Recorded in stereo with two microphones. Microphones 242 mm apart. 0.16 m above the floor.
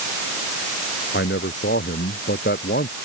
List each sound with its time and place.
1.1 s a man speaking: 50° left (ahead or behind); by 3.0 s 45° left (ahead or behind)